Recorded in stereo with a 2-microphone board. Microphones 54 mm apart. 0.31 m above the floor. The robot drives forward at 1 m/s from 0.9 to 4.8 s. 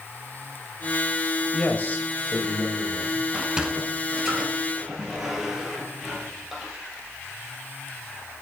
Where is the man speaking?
30° left (ahead or behind), 1.1 m; by 3.2 s 20° left (ahead or behind), 1.5 m.